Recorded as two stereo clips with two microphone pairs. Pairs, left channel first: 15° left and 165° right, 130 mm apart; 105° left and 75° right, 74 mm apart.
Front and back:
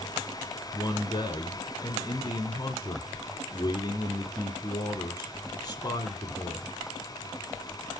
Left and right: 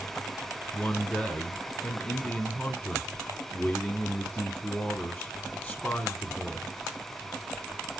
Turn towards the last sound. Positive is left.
turn(degrees=45)